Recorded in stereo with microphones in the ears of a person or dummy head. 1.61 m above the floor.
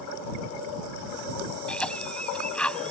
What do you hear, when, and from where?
1.7 s a cough: 5° left (ahead or behind)